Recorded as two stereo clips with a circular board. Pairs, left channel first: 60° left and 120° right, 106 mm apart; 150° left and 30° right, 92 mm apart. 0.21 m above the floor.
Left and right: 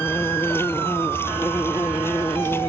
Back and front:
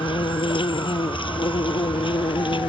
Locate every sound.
0.0 s an insect: 125° left